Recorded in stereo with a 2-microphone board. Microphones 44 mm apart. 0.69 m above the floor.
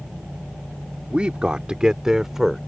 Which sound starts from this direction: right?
A man speaking, at 1.1 s.